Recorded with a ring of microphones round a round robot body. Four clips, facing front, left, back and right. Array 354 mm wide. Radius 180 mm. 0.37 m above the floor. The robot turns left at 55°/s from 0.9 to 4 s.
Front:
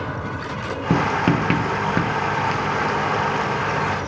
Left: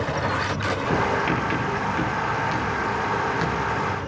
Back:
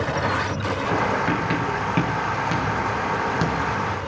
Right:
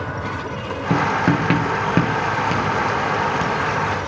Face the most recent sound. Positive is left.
turn(degrees=170)